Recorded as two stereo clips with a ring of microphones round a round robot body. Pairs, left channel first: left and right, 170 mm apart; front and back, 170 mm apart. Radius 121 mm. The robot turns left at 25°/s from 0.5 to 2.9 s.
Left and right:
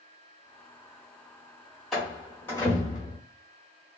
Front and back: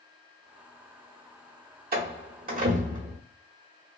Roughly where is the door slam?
Behind.